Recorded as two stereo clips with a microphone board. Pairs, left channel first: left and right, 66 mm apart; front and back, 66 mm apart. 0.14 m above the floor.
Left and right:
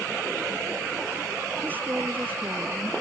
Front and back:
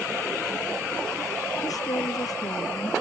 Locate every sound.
1.6 s a woman speaking: 25° right